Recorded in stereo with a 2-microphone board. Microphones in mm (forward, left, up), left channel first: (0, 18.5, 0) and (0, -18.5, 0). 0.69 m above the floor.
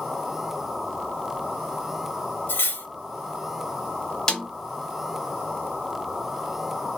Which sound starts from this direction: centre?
A snare drum, at 4.3 s.